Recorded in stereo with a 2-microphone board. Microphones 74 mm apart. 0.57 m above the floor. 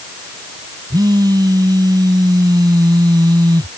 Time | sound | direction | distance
0.9 | a phone buzzing | 60° right (ahead or behind) | ?